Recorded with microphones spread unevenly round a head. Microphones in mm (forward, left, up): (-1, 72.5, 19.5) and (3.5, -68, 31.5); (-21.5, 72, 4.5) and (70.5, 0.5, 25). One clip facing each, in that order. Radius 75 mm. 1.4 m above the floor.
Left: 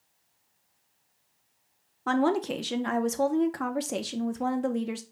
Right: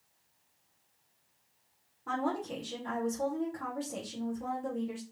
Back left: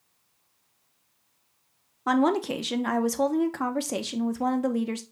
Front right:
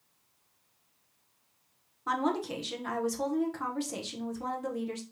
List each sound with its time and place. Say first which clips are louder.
2.1 s a woman speaking: left 9 dB, back left 7 dB; 110° left, 0.8 m